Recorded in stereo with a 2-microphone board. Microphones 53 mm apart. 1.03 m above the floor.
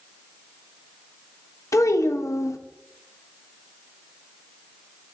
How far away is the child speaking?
About 0.9 m.